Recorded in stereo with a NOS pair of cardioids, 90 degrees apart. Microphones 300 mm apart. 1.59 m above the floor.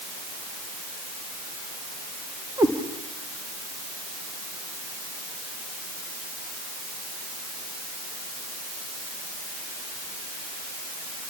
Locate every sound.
2.6 s a cat meowing: 15° right, 3 m